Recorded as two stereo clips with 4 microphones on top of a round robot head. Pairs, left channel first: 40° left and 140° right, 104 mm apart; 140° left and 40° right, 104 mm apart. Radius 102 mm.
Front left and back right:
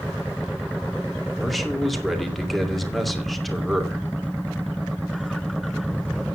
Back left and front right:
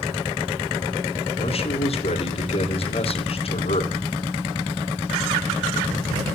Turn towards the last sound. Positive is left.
turn(degrees=130)